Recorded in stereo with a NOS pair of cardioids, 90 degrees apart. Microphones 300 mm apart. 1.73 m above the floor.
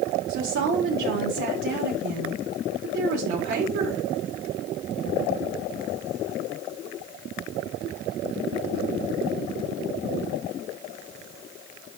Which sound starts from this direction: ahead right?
A woman speaking, at 0.3 s.